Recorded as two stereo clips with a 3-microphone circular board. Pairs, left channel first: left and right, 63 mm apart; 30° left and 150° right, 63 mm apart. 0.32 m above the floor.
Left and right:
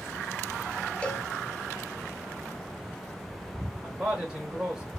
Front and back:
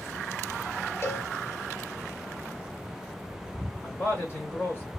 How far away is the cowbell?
About 0.6 m.